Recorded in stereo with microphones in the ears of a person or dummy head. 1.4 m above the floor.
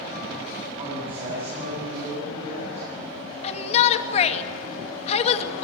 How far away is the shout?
About 2.5 m.